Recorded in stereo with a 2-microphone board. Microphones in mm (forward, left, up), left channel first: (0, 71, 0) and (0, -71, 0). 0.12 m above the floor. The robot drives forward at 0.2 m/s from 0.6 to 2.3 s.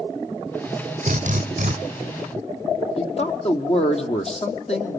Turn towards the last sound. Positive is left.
turn(degrees=45)  # may be behind; listen again after turning